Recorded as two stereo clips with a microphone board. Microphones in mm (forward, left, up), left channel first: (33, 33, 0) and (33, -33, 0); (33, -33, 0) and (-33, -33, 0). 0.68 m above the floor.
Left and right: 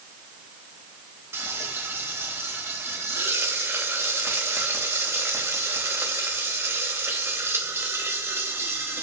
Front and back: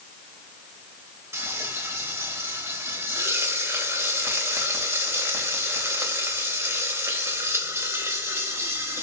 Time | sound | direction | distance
1.3 | frying | 140° right | 3 m